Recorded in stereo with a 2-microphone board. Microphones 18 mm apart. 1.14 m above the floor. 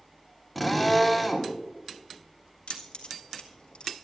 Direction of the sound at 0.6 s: Centre (ahead or behind).